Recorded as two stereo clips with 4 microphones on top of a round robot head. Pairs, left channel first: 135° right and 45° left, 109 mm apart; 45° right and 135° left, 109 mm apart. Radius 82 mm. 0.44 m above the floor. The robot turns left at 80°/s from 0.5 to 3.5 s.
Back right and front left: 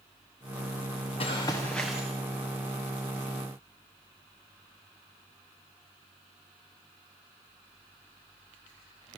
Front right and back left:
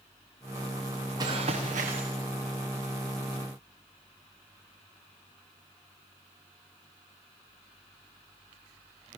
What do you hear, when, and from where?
1.2 s running footsteps: 170° right, 3.5 m; by 2.0 s 125° left, 3.5 m